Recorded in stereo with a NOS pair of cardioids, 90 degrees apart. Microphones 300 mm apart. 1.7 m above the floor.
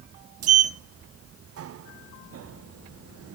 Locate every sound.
0.4 s a sliding door: 55° right, 0.8 m